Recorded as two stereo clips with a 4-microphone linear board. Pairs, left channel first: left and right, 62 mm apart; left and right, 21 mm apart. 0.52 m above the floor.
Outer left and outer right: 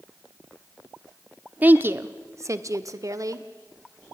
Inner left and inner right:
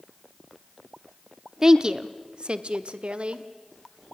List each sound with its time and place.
1.6 s a woman speaking: 25° right (ahead or behind), 0.7 m; by 3.5 s 60° right (ahead or behind), 1.4 m